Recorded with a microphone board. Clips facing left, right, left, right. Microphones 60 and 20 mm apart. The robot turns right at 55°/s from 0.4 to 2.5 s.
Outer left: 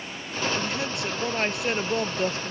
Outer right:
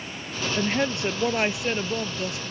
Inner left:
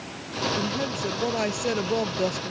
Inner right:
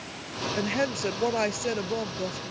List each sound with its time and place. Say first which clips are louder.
0.6 s a woman speaking: outer right 4 dB, even; 55° right; by 2.5 s 50° left